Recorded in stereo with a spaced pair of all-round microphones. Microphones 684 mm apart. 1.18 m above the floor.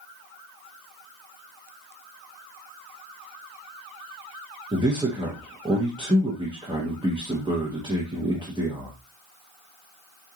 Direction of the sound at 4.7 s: 5° right (ahead or behind).